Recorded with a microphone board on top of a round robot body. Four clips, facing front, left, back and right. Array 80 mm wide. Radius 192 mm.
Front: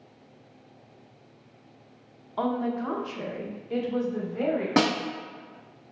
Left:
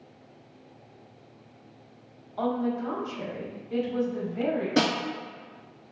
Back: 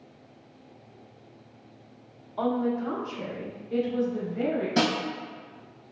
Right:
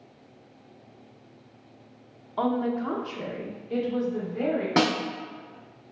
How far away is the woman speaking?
About 1.0 m.